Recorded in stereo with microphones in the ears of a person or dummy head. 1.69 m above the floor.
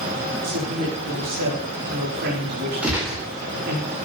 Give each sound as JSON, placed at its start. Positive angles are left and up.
{"t": 0.4, "sound": "a woman speaking", "side_deg": -50, "distance_m": 4.5}
{"t": 2.8, "sound": "a gunshot", "side_deg": -5, "distance_m": 4.5}